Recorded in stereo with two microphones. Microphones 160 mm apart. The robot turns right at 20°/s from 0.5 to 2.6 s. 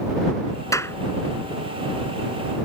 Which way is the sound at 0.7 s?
20° left (ahead or behind).